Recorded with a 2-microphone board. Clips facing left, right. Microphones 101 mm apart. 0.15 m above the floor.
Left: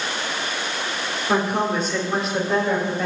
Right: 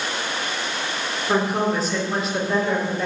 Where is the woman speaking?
Centre (ahead or behind), 3 m.